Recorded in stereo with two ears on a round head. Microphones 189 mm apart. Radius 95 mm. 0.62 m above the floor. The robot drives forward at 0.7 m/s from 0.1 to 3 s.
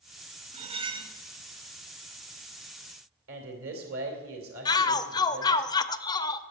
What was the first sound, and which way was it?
Cutlery clinking, 30° right (ahead or behind).